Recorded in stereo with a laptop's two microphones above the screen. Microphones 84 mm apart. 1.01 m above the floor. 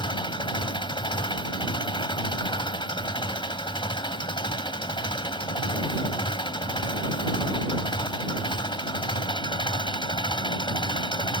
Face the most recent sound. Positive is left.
turn(degrees=80)